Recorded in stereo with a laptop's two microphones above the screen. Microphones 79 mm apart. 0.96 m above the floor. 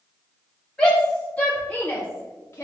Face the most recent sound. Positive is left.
turn(degrees=35)  # may be behind; listen again after turning